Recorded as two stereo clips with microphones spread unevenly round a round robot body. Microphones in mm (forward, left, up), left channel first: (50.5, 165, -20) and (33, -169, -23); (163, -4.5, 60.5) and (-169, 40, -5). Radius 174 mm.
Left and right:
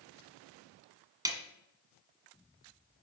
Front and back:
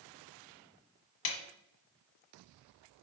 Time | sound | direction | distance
1.2 | a snare drum | 15° right | 1.4 m